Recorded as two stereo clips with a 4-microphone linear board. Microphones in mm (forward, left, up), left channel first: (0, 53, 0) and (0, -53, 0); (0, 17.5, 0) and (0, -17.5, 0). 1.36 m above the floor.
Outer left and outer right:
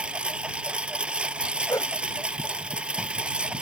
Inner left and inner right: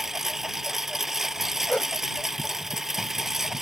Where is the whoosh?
35° left (ahead or behind).